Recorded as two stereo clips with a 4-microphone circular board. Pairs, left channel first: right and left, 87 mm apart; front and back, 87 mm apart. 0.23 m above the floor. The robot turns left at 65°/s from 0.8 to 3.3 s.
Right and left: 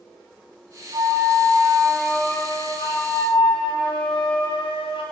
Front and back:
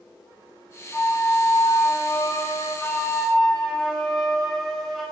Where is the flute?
70° left, 7 m; by 5.0 s 85° right, 7 m.